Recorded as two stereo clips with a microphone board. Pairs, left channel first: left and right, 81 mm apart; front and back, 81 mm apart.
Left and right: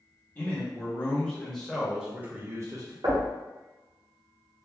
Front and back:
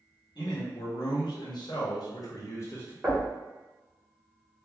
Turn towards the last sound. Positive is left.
turn(degrees=-105)